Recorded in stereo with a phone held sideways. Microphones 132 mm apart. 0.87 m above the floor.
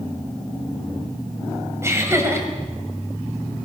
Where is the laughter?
20° right (ahead or behind), 4.5 m.